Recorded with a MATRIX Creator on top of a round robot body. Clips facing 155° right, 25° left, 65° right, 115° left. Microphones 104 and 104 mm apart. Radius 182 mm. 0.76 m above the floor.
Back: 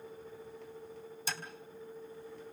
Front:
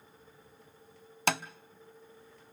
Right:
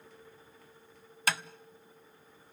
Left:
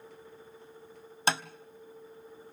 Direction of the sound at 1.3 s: 50° left.